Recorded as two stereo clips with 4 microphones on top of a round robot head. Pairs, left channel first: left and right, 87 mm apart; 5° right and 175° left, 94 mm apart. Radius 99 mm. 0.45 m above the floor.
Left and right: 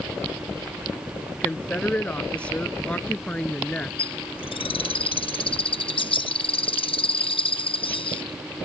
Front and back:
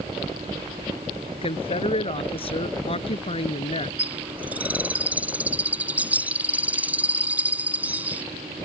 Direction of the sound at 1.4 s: 15° left.